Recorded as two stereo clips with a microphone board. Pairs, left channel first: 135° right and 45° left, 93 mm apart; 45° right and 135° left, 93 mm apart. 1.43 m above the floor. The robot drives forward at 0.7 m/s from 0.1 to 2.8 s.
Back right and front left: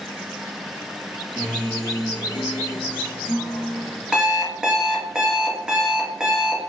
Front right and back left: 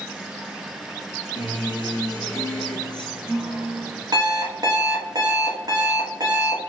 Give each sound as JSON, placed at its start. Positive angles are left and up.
{"t": 1.4, "sound": "a guitar", "azimuth_deg": -55, "distance_m": 0.9}
{"t": 4.1, "sound": "an alarm clock", "azimuth_deg": 125, "distance_m": 0.9}